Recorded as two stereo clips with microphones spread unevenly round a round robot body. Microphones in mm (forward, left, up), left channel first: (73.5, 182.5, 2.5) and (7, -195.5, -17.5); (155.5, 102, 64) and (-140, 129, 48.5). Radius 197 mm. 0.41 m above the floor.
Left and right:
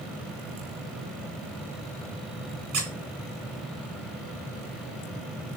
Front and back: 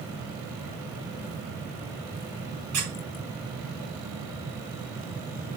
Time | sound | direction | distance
2.7 | a squeak | 145° right | 3 m